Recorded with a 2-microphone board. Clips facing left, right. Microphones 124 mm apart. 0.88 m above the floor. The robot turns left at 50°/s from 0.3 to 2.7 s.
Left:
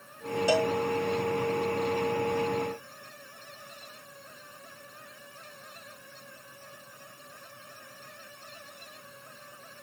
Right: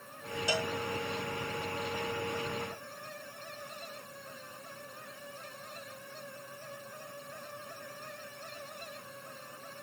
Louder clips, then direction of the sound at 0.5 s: Left 9 dB; 55° left (ahead or behind).